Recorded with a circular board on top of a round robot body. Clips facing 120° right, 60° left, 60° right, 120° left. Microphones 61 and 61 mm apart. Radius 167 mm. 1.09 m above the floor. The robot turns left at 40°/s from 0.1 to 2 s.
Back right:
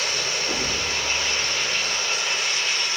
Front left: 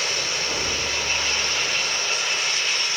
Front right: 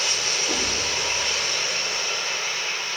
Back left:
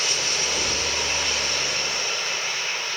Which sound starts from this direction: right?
A thud, at 0.5 s.